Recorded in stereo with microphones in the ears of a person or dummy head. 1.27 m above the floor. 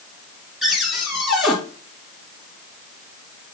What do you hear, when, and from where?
0.6 s a cupboard door: centre (ahead or behind), 1.7 m